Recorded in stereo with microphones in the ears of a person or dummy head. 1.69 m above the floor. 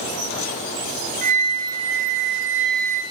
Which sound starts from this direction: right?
A flute, at 1.2 s.